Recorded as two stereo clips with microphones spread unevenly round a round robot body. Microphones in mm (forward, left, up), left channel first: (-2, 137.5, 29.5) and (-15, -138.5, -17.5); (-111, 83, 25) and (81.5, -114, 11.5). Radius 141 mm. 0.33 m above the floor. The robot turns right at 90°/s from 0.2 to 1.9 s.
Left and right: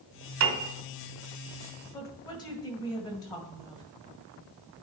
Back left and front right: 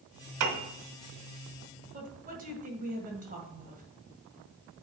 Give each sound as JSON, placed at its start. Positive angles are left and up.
{"t": 0.4, "sound": "a piano", "azimuth_deg": -65, "distance_m": 1.4}
{"t": 1.9, "sound": "a woman speaking", "azimuth_deg": 5, "distance_m": 2.0}